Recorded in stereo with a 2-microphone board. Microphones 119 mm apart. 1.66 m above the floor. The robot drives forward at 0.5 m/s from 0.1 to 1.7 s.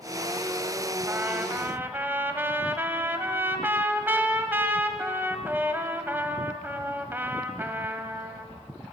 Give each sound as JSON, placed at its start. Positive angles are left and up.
{"t": 1.1, "sound": "a trumpet", "side_deg": -20, "distance_m": 1.5}